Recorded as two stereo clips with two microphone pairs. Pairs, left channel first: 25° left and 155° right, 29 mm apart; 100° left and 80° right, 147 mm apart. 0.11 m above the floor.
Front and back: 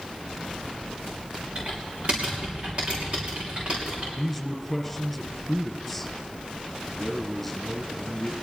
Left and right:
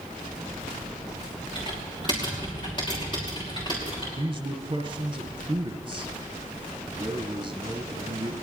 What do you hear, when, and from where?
1.6 s typing on a keyboard: 155° left, 5.5 m
4.2 s a man speaking: 60° right, 1.4 m